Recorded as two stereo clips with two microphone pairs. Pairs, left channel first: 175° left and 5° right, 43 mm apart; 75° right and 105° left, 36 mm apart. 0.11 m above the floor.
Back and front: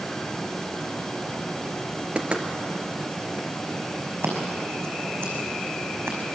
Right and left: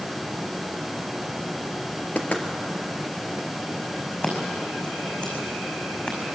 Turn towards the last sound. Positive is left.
turn(degrees=-15)